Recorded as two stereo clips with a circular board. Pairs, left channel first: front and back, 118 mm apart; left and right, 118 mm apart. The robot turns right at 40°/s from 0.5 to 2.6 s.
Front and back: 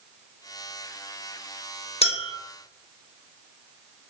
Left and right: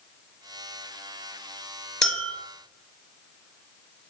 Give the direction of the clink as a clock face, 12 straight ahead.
12 o'clock.